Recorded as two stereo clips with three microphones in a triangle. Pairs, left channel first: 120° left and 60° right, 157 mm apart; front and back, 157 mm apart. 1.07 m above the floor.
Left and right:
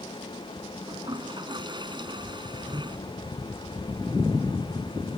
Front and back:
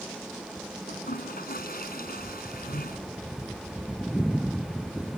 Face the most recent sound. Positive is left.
turn(degrees=0)